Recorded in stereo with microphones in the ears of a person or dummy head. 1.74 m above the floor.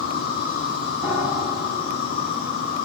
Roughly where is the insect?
Left.